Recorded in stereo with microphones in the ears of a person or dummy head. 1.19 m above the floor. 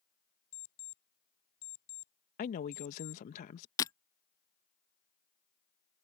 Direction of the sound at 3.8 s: 25° left (ahead or behind).